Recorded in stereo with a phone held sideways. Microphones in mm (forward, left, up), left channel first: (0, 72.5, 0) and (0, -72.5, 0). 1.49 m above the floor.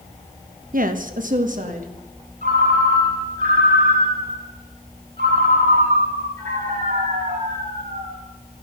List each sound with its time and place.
0.7 s a woman speaking: 70° right (ahead or behind), 1.3 m; by 1.9 s 60° right (ahead or behind), 2.5 m
2.4 s a ringtone: 80° right, 4 m